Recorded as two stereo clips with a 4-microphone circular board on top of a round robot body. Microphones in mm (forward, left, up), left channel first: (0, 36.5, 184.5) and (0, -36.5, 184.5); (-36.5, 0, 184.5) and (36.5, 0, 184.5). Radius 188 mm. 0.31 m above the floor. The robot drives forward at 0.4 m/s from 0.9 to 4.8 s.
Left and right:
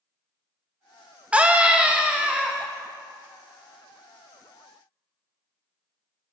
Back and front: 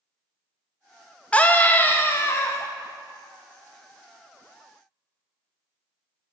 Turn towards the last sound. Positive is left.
turn(degrees=-170)